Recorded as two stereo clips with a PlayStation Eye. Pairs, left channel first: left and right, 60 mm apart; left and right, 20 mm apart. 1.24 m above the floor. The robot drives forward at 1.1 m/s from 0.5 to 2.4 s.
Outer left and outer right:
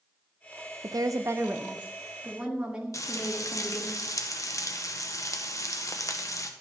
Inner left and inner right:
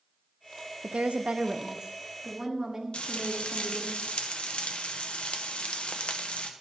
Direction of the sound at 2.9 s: 60° left (ahead or behind).